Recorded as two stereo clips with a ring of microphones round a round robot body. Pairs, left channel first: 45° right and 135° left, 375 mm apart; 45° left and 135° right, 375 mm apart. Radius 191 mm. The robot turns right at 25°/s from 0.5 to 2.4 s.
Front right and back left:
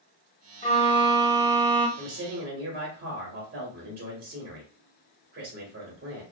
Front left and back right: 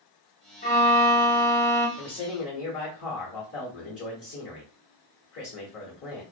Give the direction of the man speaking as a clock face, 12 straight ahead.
10 o'clock.